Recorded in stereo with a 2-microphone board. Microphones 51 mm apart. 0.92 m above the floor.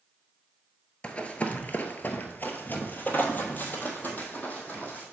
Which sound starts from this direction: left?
Running footsteps, at 1.0 s.